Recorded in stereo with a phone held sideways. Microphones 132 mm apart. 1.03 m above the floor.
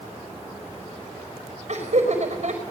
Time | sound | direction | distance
1.7 | laughter | 55° right (ahead or behind) | 5 m